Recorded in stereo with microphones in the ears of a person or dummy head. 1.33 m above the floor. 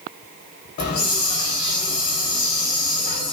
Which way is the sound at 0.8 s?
45° left (ahead or behind).